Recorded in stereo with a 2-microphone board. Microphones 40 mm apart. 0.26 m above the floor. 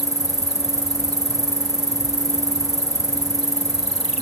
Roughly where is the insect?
Centre.